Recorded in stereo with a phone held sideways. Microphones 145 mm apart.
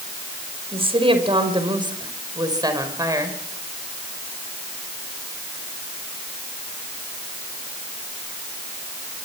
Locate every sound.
0.7 s a woman speaking: 40° right (ahead or behind), 5 m; by 3.4 s 25° right (ahead or behind), 5 m